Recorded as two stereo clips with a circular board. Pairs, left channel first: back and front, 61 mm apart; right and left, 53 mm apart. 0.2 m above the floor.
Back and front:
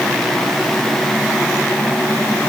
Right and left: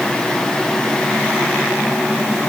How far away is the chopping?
I don't hear chopping.